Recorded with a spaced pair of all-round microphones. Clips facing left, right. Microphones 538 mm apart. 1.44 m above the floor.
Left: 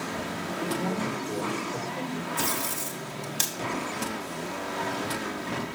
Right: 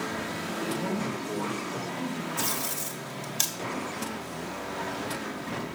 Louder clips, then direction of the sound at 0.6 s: Left 1 dB; 15° right (ahead or behind).